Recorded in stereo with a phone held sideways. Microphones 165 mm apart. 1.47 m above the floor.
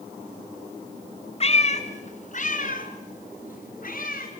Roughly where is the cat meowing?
Left.